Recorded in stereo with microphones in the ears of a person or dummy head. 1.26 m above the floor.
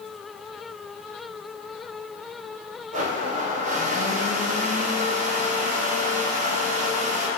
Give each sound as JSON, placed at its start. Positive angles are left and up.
{"t": 2.9, "sound": "a blender", "side_deg": -40, "distance_m": 0.9}